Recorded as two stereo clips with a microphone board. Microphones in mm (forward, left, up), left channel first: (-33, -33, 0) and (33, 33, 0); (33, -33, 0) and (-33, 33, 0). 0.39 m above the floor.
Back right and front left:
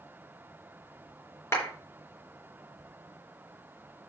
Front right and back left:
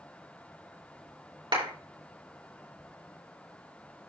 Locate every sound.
1.5 s a clap: 165° left, 4 m